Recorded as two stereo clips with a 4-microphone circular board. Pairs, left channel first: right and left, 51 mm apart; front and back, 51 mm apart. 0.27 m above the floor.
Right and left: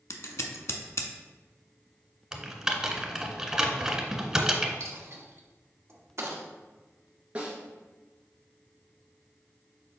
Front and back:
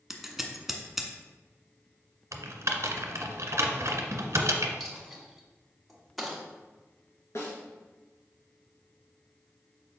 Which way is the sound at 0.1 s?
95° right.